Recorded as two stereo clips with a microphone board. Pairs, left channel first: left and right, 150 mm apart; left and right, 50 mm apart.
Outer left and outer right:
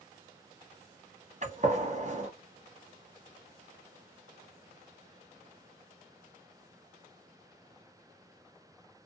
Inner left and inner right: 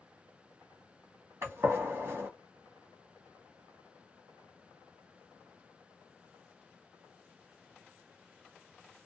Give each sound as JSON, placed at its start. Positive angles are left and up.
{"t": 1.4, "sound": "a gunshot", "side_deg": -55, "distance_m": 1.0}